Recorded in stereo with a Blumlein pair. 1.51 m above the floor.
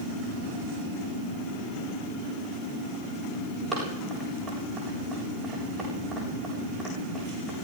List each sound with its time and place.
3.7 s running footsteps: 15° right, 8 m